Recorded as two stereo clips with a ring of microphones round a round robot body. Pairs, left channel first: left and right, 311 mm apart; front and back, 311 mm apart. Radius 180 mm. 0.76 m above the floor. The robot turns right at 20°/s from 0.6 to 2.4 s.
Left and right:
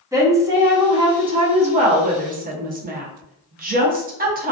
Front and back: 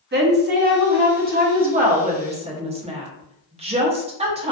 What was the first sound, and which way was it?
A woman speaking, 160° right.